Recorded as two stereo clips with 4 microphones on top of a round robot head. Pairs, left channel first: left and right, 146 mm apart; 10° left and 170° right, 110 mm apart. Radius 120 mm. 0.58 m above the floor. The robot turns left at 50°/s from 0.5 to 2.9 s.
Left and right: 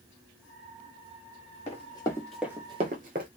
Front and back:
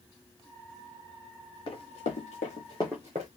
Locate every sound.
1.7 s running footsteps: 50° left, 1.7 m; by 3.3 s 130° right, 0.7 m